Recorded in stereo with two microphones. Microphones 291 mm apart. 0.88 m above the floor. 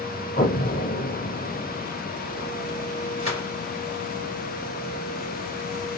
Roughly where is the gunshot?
Left.